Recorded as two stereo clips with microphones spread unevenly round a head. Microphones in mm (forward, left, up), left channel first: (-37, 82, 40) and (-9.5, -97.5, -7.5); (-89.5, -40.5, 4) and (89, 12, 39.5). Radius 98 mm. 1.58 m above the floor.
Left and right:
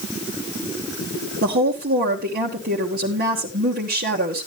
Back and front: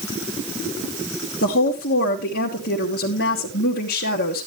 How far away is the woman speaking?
About 1.3 m.